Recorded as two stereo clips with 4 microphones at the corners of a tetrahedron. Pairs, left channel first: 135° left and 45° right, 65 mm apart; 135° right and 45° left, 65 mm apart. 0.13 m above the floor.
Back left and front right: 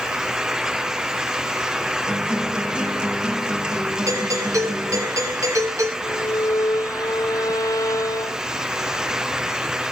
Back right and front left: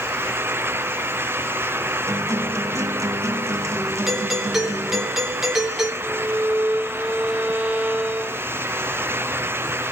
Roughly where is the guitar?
Ahead left.